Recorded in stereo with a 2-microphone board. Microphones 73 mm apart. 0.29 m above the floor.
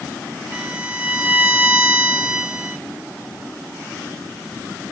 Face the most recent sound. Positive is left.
turn(degrees=-20)  # may be behind; listen again after turning